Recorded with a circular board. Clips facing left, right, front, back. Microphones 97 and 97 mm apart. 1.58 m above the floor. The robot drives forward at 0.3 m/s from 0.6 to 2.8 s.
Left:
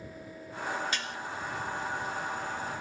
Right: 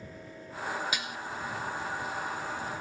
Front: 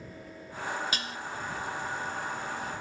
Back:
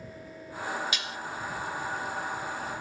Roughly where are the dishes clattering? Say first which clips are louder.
Even, even; ahead.